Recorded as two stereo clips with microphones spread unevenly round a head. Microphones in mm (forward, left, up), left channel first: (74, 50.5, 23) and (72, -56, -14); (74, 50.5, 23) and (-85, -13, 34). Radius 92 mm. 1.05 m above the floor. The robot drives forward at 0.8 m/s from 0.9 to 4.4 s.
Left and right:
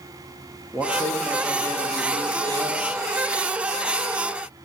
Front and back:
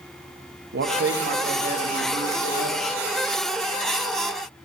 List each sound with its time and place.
0.7 s a man speaking: straight behind, 1.3 m